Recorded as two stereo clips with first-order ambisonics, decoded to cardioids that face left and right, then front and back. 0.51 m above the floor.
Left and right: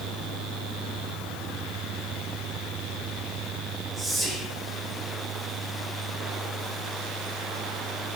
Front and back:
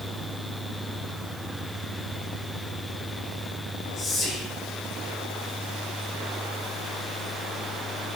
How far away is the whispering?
About 0.8 m.